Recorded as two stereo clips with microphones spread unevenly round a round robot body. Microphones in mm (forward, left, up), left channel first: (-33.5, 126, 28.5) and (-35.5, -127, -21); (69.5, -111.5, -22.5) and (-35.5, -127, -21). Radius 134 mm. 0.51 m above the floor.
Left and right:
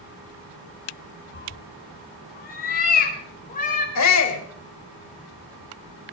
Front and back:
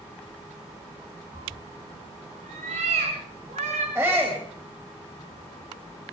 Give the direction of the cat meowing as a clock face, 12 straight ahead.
7 o'clock.